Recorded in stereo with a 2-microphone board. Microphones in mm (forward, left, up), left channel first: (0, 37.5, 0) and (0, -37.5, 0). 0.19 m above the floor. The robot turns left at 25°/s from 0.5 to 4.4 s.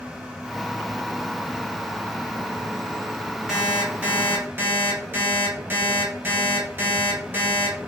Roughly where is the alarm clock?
Centre.